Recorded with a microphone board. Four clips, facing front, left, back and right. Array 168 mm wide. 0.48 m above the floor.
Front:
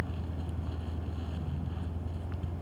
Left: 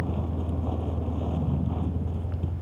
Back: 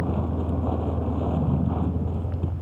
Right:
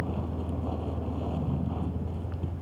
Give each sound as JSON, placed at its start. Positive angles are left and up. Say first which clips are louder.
{"t": 0.0, "sound": "a vehicle", "louder": "left 2 dB, back 12 dB", "azimuth_deg": 175}